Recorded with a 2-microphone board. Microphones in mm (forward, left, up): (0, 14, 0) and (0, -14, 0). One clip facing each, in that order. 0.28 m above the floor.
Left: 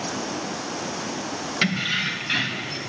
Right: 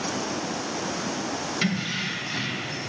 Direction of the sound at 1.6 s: 25° left (ahead or behind).